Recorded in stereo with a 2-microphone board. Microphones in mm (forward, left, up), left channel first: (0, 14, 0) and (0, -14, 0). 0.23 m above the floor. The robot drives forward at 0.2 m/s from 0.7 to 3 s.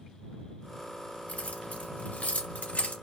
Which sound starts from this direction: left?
Keys jangling, at 1.3 s.